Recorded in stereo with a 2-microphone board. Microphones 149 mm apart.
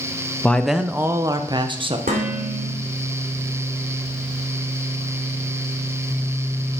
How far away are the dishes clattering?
About 2.5 m.